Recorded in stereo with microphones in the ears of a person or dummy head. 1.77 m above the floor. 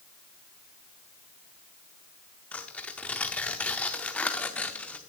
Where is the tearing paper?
10° left (ahead or behind), 0.5 m.